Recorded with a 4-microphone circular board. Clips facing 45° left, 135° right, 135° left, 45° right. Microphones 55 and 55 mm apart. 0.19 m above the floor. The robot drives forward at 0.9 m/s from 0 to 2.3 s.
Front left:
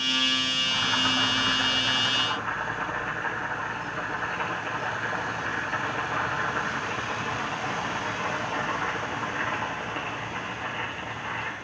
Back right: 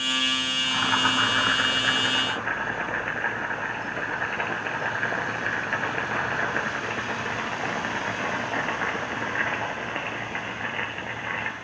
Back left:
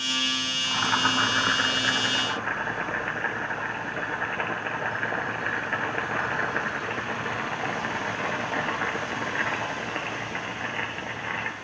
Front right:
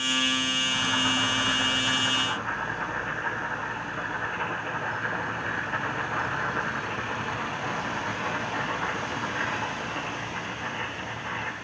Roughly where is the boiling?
Behind.